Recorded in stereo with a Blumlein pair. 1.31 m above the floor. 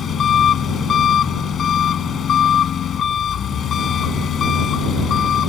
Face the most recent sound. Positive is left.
turn(degrees=25)